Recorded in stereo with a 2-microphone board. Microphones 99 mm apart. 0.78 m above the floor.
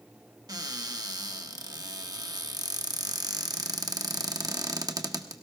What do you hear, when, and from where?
0.5 s a cupboard door: 40° right (ahead or behind), 1.0 m